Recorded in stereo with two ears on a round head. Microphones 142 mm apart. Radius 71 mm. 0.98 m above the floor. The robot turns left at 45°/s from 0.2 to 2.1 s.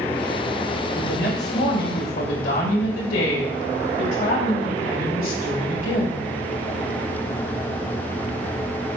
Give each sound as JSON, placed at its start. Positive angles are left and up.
{"t": 0.9, "sound": "a woman speaking", "azimuth_deg": 115, "distance_m": 4.5}